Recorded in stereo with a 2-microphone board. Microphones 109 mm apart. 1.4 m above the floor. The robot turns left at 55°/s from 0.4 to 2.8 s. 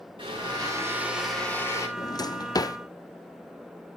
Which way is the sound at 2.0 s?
35° left (ahead or behind).